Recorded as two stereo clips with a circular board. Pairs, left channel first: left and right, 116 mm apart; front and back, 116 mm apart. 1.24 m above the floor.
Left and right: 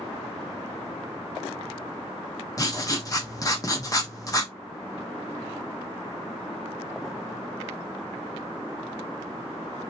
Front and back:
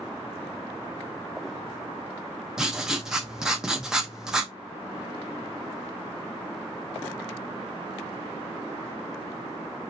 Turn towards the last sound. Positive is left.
turn(degrees=100)